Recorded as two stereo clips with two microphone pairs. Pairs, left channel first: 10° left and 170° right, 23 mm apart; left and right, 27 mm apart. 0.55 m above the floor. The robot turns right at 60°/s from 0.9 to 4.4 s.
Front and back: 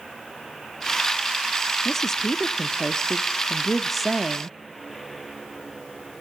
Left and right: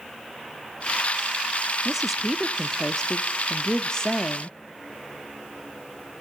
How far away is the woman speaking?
About 0.7 m.